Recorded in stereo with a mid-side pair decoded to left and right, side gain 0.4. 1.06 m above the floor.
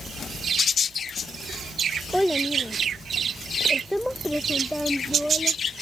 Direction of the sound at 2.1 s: 5° left.